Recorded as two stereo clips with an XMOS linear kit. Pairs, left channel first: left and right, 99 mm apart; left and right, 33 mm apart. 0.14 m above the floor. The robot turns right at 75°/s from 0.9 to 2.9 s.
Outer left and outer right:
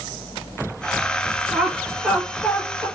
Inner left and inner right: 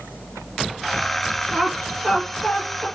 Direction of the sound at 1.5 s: 15° right (ahead or behind).